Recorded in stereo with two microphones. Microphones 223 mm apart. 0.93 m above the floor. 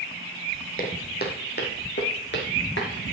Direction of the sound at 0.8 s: 40° left (ahead or behind).